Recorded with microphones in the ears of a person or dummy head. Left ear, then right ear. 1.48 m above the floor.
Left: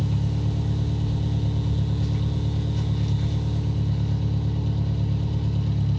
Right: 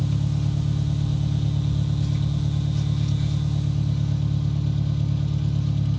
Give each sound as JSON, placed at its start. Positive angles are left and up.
{"t": 0.0, "sound": "an engine running", "side_deg": 0, "distance_m": 1.8}